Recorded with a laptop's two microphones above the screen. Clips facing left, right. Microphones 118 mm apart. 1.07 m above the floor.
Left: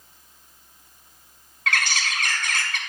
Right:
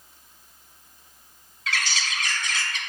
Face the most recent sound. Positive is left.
turn(degrees=55)  # may be behind; listen again after turning